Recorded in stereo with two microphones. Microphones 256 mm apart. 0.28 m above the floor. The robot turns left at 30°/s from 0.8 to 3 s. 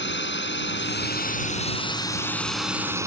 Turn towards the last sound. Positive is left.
turn(degrees=-10)